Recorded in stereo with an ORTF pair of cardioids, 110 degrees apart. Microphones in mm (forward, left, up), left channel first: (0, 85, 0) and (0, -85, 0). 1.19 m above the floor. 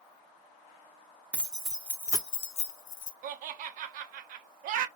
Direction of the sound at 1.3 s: 10° right.